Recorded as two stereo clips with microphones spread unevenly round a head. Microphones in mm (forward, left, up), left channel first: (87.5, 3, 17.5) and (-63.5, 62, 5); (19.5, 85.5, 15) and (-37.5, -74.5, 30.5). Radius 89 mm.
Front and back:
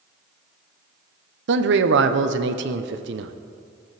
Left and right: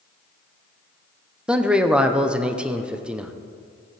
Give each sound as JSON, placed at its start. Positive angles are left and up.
{"t": 1.5, "sound": "a man speaking", "azimuth_deg": 165, "distance_m": 0.7}